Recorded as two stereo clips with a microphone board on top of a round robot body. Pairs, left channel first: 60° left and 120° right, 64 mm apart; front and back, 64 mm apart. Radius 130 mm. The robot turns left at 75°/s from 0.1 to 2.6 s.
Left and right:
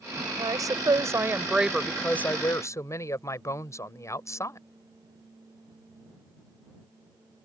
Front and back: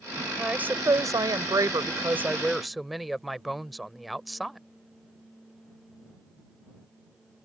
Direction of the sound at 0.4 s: 100° right.